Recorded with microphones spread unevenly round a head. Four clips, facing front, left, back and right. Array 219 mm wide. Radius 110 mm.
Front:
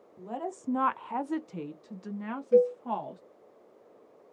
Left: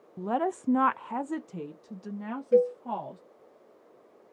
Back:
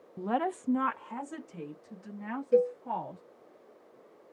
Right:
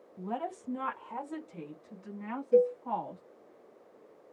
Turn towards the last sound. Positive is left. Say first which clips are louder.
# left 2 dB, front 3 dB
turn(degrees=85)